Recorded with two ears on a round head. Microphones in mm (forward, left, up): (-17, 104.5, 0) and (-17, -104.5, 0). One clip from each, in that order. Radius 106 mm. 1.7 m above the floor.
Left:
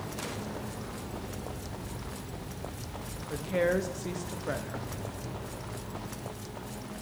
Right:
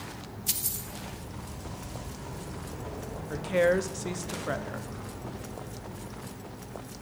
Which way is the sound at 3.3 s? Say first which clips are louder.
Right 4 dB; 20° right (ahead or behind).